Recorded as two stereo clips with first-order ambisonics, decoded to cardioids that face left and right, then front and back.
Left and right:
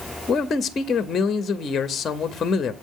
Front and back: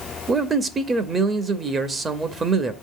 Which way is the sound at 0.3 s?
125° left.